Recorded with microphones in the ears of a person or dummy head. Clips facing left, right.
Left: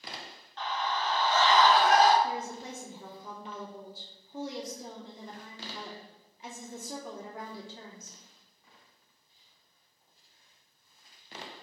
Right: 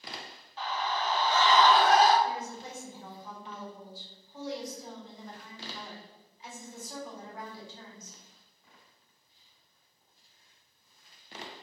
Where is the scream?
10° right (ahead or behind), 3 m; by 2.1 s 30° right (ahead or behind), 3.5 m.